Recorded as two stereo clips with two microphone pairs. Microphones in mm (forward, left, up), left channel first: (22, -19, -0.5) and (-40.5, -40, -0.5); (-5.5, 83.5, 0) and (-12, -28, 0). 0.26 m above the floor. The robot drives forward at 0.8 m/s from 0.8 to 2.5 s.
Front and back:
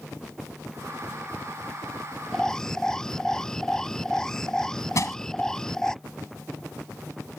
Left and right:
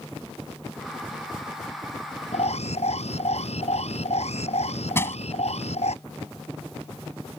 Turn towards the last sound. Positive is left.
turn(degrees=25)